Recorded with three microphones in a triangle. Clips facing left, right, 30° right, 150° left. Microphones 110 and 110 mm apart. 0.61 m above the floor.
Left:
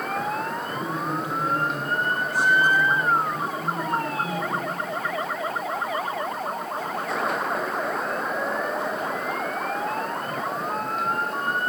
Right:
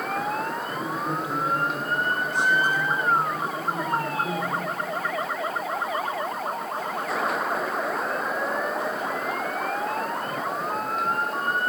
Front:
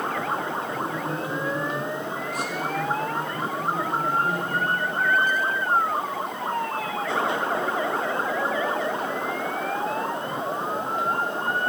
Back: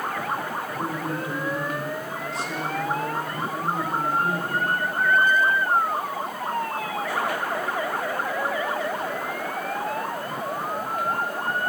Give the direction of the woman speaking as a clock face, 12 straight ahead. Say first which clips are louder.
Left 1 dB, even; 5 o'clock.